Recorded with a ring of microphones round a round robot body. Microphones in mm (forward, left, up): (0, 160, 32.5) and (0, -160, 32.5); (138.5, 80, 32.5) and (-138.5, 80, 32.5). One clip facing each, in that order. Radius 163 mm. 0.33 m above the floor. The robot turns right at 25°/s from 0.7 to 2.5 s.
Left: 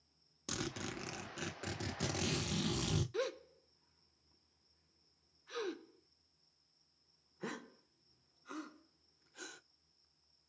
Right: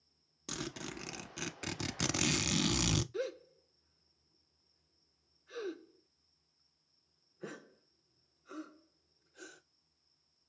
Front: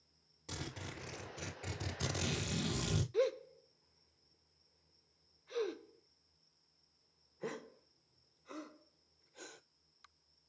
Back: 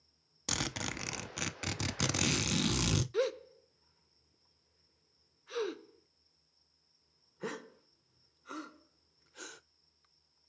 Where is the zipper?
Straight behind, 0.6 m; by 3.0 s 135° right, 0.6 m.